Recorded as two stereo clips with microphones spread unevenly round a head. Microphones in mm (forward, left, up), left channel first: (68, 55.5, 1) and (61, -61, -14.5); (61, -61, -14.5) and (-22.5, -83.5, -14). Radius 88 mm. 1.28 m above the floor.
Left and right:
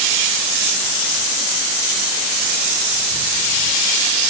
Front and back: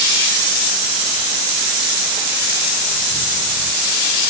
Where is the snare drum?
No snare drum in this recording.